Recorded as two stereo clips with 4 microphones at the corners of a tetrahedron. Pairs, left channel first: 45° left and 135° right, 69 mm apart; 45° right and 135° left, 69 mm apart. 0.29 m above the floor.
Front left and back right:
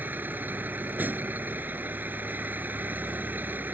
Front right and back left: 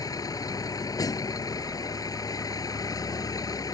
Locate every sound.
0.0 s a vehicle: 75° right